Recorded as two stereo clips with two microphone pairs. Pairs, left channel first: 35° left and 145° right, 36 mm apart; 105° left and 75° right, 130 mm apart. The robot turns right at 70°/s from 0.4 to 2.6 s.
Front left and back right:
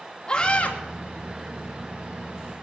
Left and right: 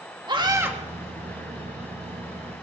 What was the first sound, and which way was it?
A scream, 25° right.